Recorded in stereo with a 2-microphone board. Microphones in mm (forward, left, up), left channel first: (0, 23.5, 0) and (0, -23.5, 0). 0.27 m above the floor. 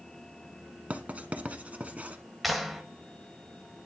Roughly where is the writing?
Right.